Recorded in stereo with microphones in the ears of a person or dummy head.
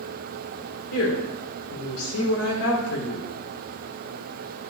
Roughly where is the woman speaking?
Left.